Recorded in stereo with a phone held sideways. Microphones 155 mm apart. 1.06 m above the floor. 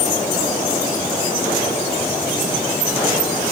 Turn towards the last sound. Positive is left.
No sound to turn to.